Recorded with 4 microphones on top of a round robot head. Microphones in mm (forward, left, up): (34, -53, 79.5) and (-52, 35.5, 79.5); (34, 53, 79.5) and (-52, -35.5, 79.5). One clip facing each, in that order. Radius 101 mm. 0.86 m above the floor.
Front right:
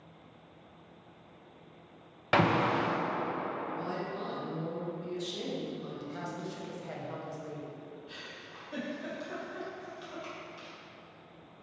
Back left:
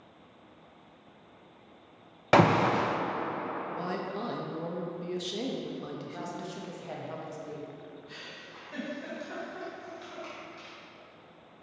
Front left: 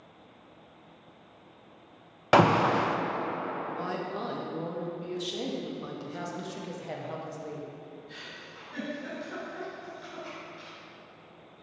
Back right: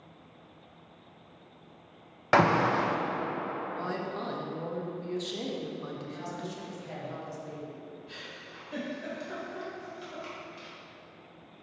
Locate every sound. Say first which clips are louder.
2.3 s an alarm: back left 5 dB, front left 2 dB; 115° left, 0.5 m
3.6 s a woman speaking: back left 1 dB, front left 1 dB; 130° left, 1.2 m
6.1 s a woman speaking: back left 1 dB, front left 1 dB; 60° left, 1.2 m
8.1 s a giggle: back left 1 dB, even; 130° right, 2 m